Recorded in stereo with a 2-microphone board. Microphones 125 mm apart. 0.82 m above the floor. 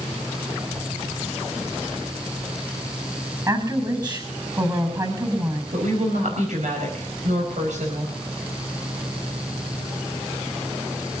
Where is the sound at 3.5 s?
30° right (ahead or behind), 6 m.